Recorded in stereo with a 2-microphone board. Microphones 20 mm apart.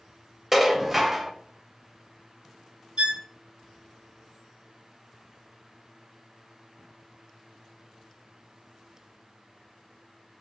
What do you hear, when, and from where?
0.5 s dishes clattering: 15° right (ahead or behind), 0.6 m
3.0 s a violin: 70° right (ahead or behind), 0.7 m